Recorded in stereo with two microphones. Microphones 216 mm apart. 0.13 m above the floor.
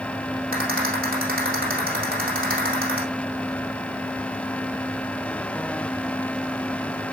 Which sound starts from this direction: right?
A rattle, at 0.5 s.